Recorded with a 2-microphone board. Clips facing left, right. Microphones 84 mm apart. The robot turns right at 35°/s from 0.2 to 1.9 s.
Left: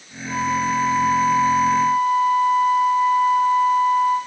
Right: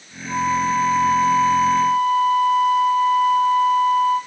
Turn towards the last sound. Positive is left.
turn(degrees=25)